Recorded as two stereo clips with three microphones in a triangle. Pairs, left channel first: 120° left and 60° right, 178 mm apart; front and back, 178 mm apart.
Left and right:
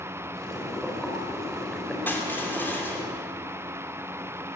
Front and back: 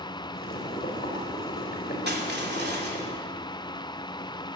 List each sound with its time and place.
0.3 s boiling: 35° left, 4 m
2.1 s crushing: 160° right, 3 m